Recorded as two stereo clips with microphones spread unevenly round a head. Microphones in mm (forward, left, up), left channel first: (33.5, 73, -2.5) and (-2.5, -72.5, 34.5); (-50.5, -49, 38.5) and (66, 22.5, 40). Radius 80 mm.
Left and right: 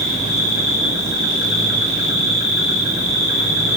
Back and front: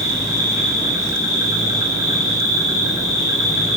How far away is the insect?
About 6.5 m.